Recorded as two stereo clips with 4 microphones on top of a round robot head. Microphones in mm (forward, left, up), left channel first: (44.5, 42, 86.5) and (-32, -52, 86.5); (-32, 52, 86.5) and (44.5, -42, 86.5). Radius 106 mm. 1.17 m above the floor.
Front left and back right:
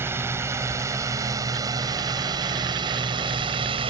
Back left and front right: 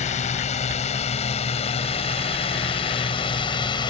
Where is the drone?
160° left; by 3.9 s 175° right.